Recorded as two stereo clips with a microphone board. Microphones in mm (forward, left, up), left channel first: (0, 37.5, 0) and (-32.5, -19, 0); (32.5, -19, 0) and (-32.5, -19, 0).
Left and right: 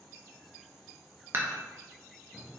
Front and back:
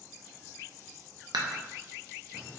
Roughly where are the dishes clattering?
Behind.